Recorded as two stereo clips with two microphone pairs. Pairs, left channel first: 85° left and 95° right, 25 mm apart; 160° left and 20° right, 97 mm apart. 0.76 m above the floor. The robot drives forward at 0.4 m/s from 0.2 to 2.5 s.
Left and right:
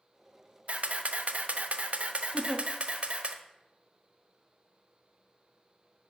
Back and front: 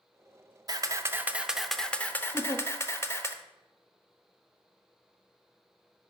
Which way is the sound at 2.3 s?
130° left.